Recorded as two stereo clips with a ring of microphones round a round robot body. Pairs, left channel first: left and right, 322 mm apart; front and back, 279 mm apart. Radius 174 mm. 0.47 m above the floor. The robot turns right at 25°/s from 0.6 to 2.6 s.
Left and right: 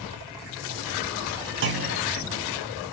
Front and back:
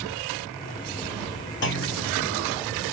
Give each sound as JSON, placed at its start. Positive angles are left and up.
{"t": 1.6, "sound": "a clunk", "azimuth_deg": -45, "distance_m": 2.0}